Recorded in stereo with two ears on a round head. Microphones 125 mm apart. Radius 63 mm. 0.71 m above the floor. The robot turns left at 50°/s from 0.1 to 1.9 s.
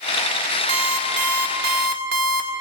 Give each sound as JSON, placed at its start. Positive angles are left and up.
{"t": 0.7, "sound": "an alarm clock", "azimuth_deg": -35, "distance_m": 1.2}